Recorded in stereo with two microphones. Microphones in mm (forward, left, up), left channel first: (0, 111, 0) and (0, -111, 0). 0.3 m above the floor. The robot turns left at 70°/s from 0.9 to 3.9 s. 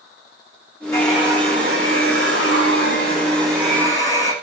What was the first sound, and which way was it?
A hair dryer, 15° left.